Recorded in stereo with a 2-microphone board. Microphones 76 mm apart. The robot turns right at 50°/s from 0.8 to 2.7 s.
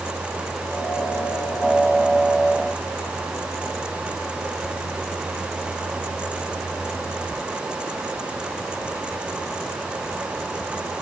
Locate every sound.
Only background noise.